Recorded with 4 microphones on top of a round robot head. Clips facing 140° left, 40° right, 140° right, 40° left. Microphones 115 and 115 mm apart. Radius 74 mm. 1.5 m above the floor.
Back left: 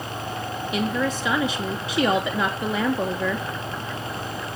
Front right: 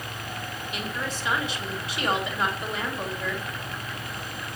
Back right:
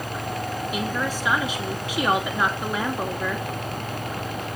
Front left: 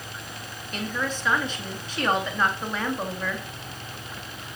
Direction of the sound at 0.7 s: 135° left.